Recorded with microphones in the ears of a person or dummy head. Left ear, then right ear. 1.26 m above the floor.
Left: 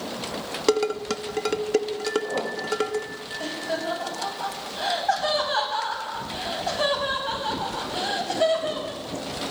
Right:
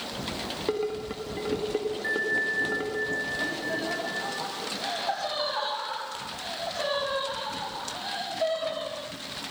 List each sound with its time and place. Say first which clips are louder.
0.7 s dishes clattering: left 8 dB; 80° left, 1.6 m
2.0 s a bell: even; 35° right (ahead or behind), 2 m
3.4 s laughter: left 1 dB; 75° left (ahead or behind), 10 m